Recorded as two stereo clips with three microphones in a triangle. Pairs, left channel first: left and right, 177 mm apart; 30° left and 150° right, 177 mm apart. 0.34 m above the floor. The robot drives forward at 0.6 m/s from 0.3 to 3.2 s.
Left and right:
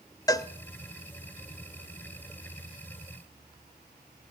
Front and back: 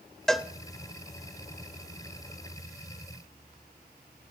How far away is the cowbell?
About 0.5 m.